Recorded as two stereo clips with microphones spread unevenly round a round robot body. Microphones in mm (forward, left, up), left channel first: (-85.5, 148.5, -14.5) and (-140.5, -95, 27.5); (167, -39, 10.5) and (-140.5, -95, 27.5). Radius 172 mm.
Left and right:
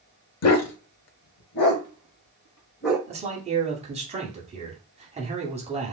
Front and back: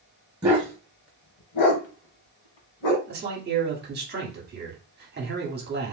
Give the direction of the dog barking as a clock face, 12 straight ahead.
8 o'clock.